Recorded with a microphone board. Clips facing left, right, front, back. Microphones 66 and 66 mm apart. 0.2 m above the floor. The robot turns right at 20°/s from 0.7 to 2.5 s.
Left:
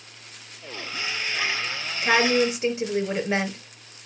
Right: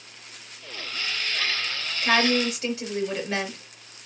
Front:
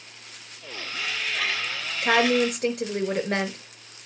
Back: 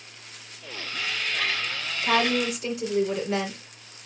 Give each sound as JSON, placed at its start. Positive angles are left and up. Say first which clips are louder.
{"t": 2.0, "sound": "a woman speaking", "louder": "left 2 dB, front 3 dB", "azimuth_deg": 15, "distance_m": 3.5}